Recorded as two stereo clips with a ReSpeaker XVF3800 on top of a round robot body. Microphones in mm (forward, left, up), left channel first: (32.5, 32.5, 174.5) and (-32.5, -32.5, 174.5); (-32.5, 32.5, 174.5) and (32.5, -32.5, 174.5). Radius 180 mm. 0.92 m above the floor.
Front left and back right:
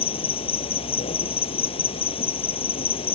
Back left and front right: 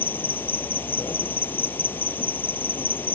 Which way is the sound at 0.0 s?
65° left.